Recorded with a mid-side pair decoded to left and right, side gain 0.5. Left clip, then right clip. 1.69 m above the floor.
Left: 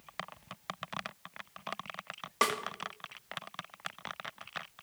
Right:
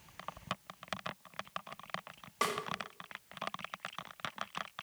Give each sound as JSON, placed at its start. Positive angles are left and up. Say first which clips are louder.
{"t": 2.4, "sound": "a snare drum", "louder": "left 5 dB", "azimuth_deg": 35, "distance_m": 2.5}